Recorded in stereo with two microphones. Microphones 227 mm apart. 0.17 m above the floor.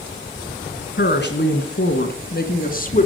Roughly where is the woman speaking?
Left.